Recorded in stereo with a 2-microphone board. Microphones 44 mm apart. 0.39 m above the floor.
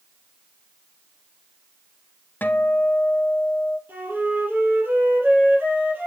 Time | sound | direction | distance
2.4 | a guitar | 45° left (ahead or behind) | 0.5 m
3.9 | a flute | 55° right (ahead or behind) | 3 m